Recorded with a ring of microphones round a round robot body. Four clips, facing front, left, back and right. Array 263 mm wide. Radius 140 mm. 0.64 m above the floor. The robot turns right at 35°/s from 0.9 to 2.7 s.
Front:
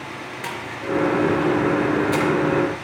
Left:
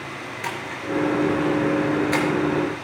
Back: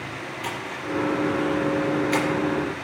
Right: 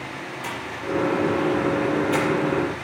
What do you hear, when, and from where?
0.4 s a splash: 55° left, 4 m; by 2.2 s 100° left, 4 m